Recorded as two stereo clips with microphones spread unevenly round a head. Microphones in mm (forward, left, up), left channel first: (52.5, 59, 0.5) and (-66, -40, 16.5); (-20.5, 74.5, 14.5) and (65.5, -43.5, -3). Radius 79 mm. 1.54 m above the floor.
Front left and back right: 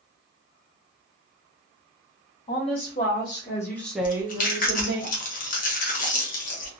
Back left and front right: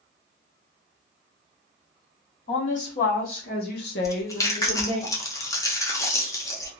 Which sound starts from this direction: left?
A woman speaking, at 2.5 s.